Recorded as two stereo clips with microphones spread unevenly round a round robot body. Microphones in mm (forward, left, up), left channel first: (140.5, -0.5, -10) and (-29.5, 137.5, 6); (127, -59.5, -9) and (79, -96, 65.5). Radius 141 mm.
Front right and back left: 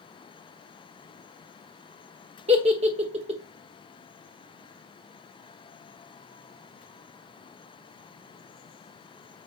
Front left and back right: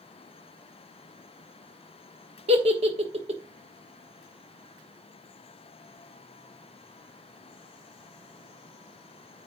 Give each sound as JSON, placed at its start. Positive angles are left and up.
{"t": 2.5, "sound": "a giggle", "azimuth_deg": -170, "distance_m": 1.1}